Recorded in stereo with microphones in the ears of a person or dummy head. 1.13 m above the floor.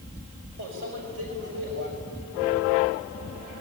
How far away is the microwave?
About 5.5 m.